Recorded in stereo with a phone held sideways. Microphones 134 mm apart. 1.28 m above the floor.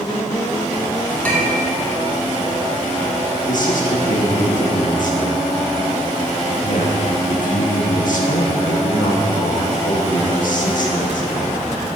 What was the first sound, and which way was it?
A clink, 10° left (ahead or behind).